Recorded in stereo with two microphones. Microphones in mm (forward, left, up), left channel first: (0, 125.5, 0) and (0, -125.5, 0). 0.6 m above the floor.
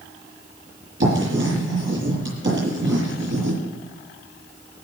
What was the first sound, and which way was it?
Writing, 50° right (ahead or behind).